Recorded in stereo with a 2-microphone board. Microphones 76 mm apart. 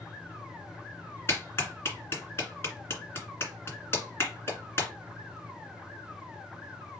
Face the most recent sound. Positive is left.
turn(degrees=35)  # may be behind; listen again after turning